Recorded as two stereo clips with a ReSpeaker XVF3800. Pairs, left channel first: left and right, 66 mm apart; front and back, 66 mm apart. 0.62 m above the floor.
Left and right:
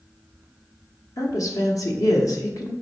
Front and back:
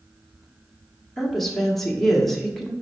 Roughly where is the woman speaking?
Left.